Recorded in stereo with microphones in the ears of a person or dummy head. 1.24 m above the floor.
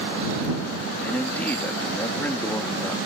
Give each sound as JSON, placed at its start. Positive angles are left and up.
{"t": 1.0, "sound": "a man speaking", "side_deg": 10}